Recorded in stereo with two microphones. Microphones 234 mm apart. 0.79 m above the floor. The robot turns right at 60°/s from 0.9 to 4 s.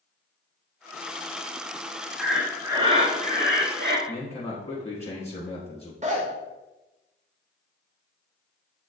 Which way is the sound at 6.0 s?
30° right (ahead or behind).